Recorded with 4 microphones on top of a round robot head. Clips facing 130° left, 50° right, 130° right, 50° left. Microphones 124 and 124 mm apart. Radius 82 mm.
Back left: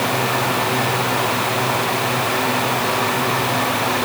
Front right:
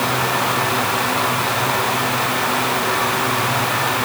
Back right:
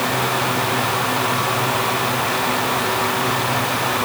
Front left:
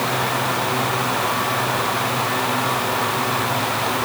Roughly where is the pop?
No pop in this recording.